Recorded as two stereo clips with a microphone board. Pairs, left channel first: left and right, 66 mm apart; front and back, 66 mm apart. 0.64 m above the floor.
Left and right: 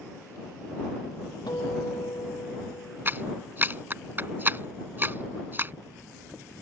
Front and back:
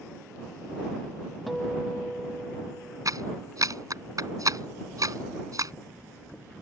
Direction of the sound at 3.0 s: 150° right.